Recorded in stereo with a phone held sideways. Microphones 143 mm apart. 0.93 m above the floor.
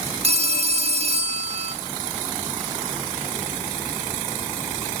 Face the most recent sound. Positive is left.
turn(degrees=-45)  # may be behind; listen again after turning